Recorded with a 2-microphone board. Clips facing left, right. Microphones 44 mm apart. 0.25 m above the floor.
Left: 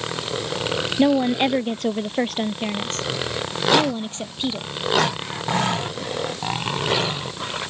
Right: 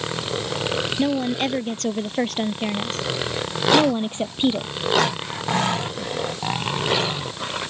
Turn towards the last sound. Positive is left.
turn(degrees=-30)  # may be behind; listen again after turning